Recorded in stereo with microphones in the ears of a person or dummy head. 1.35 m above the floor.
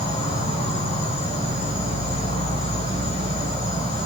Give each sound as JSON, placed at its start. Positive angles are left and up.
{"t": 0.0, "sound": "an insect", "side_deg": 30, "distance_m": 2.5}